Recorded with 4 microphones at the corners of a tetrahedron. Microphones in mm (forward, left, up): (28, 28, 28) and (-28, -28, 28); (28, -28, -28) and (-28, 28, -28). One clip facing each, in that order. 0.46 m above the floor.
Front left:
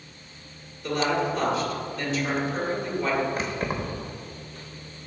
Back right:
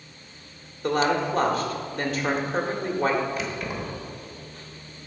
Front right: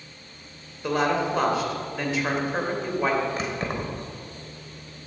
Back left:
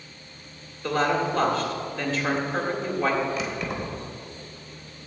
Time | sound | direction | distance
0.8 | a woman speaking | 120° right | 1.8 m
3.4 | keys jangling | straight ahead | 1.2 m